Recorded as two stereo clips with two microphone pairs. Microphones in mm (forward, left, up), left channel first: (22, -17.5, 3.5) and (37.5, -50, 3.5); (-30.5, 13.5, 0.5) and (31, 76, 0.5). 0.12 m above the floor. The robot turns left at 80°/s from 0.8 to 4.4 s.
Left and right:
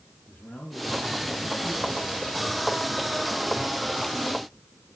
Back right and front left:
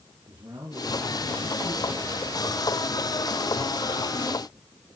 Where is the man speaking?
80° left, 4 m; by 2.9 s 85° right, 4 m.